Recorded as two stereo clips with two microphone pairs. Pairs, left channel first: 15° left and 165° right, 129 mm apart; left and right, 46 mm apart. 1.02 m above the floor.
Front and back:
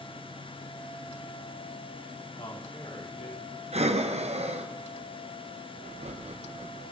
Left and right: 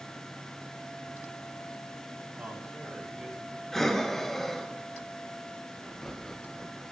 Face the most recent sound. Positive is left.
turn(degrees=175)